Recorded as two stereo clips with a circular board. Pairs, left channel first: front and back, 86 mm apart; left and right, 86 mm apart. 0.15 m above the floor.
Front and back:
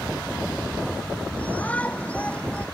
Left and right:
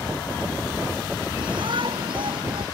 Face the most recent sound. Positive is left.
turn(degrees=-75)